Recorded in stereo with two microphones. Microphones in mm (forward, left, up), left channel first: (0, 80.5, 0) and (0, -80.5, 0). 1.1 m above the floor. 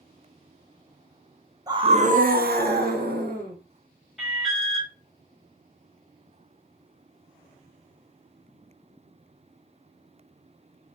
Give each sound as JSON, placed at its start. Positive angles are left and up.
{"t": 1.7, "sound": "a scream", "side_deg": -25, "distance_m": 0.5}
{"t": 4.2, "sound": "an alarm", "side_deg": 0, "distance_m": 1.2}